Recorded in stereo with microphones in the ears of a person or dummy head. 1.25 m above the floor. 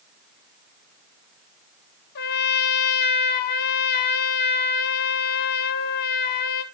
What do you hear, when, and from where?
2.1 s a trumpet: 50° left (ahead or behind), 1.5 m